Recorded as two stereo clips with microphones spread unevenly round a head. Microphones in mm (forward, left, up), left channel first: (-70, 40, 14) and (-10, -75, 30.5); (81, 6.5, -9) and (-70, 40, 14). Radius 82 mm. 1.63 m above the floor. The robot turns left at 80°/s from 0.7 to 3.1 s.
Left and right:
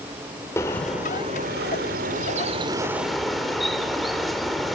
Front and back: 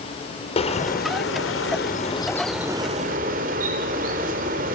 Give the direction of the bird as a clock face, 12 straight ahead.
11 o'clock.